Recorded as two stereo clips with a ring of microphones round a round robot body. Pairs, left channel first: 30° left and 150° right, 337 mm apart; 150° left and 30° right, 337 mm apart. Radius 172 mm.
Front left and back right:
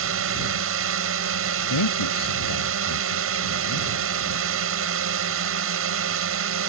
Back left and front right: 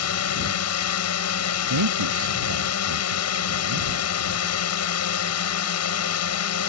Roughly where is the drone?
Behind.